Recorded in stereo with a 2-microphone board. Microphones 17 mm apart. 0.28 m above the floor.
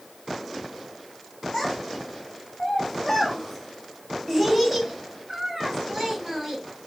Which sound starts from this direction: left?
A child speaking, at 1.5 s.